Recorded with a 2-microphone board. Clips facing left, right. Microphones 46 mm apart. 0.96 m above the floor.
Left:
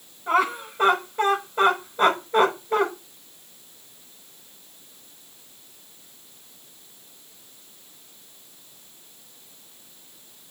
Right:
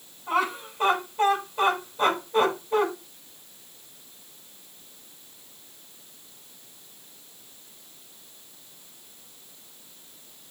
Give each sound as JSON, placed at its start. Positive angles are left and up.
{"t": 0.3, "sound": "laughter", "side_deg": 50, "distance_m": 6.0}